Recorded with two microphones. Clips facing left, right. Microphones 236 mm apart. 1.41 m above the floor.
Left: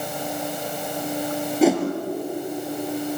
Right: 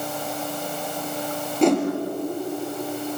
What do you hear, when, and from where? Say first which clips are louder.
1.6 s a whoosh: even; 5° left (ahead or behind), 4.5 m